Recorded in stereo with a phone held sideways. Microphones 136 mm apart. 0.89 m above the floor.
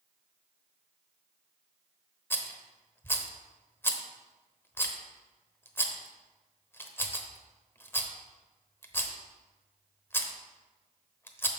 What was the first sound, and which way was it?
A rattle, 15° left (ahead or behind).